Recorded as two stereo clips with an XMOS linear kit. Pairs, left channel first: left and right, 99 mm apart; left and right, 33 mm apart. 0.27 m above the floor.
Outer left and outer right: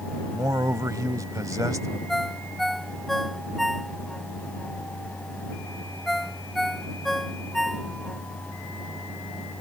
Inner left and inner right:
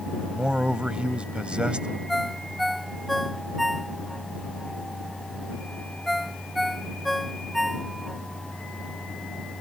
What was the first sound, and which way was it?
A man speaking, 35° right (ahead or behind).